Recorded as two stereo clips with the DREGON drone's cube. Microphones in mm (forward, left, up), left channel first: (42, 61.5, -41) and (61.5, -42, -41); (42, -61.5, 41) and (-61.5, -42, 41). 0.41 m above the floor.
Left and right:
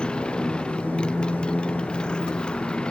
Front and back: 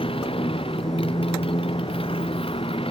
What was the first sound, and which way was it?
A motorcycle, 20° left.